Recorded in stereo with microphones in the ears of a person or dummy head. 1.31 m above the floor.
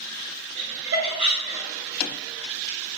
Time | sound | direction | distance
0.6 | laughter | 70° right (ahead or behind) | 1.7 m